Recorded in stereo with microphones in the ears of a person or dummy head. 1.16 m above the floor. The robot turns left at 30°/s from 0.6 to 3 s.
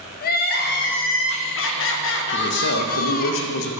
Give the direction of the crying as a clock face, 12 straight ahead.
8 o'clock.